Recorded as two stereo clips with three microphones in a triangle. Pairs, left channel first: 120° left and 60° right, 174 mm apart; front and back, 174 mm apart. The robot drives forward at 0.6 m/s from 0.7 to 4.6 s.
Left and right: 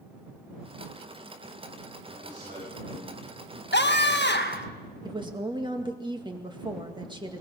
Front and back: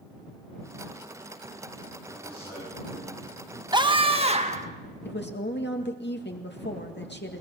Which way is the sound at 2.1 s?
60° right.